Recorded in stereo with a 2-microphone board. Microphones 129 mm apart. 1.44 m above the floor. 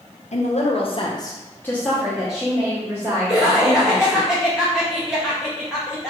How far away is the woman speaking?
About 0.8 m.